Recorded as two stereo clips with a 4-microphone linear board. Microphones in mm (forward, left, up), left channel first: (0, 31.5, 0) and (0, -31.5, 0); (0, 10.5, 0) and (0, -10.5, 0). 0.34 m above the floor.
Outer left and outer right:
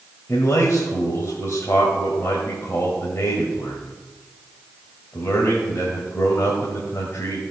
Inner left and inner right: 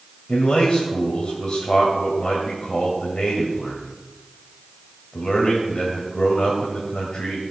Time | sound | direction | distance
0.3 | a man speaking | 45° left (ahead or behind) | 1.9 m